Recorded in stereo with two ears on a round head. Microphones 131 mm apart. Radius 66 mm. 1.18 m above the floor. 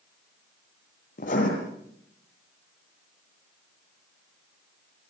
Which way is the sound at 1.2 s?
55° left (ahead or behind).